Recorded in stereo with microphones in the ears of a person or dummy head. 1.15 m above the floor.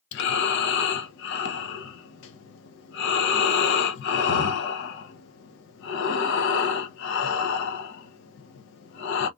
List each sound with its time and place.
0.1 s breathing: 65° left (ahead or behind), 0.6 m